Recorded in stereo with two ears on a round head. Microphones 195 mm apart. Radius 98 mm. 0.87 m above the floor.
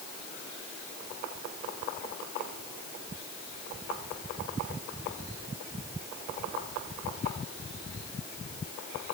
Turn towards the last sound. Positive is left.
No sound to turn to.